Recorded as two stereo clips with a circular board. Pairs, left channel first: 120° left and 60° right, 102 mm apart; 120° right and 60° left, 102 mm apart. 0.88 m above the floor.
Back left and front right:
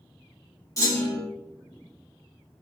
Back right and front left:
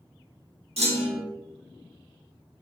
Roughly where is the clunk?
Ahead left.